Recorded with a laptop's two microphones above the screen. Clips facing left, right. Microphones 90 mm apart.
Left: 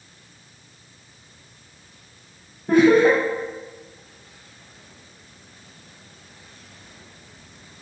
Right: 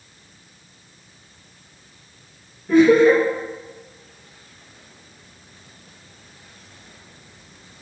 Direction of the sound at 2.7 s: 55° left (ahead or behind).